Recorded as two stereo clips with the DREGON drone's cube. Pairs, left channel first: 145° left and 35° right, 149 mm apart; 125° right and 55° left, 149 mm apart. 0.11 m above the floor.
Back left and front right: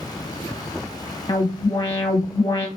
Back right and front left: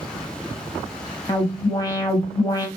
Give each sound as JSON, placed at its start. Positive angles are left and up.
{"t": 1.3, "sound": "an alarm", "azimuth_deg": -170, "distance_m": 1.3}